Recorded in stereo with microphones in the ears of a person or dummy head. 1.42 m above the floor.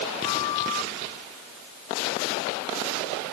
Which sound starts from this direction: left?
A flute, at 0.2 s.